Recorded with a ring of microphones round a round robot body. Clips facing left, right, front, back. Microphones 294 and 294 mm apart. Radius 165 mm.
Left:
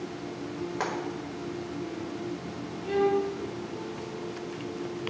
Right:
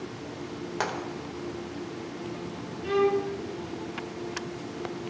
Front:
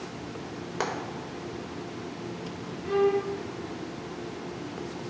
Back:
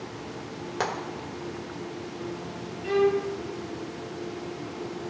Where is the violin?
145° right, 1.8 m.